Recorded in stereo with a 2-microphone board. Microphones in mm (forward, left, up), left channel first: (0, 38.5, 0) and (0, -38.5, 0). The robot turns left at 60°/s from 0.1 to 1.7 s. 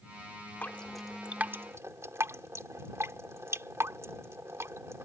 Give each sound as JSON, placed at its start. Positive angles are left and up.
{"t": 0.6, "sound": "dripping", "side_deg": 25}